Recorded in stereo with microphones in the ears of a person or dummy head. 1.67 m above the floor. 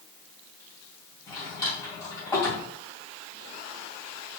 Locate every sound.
1.3 s a drawer: 20° left (ahead or behind), 2 m